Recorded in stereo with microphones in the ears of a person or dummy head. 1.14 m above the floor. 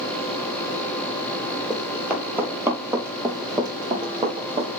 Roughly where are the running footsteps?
Centre.